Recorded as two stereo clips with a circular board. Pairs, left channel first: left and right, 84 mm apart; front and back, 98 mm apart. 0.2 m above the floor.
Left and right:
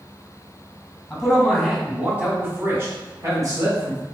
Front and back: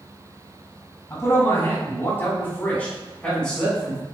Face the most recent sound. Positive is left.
turn(degrees=-85)